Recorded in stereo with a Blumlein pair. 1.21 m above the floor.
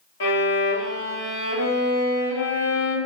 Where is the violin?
60° left, 0.8 m.